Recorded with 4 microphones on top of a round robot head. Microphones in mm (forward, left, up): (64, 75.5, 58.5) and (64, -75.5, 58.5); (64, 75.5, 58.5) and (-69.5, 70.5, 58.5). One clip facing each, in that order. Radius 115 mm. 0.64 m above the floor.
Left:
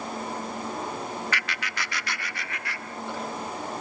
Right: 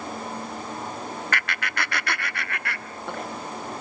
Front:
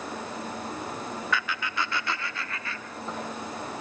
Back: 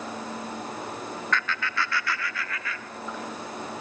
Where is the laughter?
80° right, 1.0 m; by 3.3 s 60° right, 2.5 m.